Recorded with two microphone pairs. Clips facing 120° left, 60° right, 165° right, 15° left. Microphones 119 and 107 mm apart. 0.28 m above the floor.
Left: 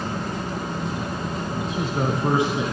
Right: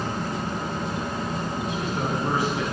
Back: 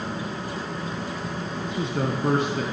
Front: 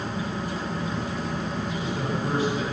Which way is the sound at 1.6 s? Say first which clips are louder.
Left 5 dB, back 2 dB; straight behind.